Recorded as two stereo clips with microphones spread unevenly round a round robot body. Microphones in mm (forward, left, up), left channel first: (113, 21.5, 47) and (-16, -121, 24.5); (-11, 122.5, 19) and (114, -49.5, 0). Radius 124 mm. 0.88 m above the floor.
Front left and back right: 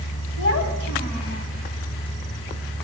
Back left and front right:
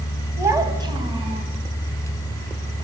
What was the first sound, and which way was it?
A child speaking, 25° left.